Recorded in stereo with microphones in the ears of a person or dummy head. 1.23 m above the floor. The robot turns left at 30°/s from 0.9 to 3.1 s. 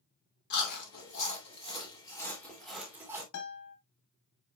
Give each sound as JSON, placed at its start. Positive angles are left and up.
{"t": 0.5, "sound": "chewing", "side_deg": 50, "distance_m": 2.5}
{"t": 3.3, "sound": "a guitar", "side_deg": 80, "distance_m": 3.0}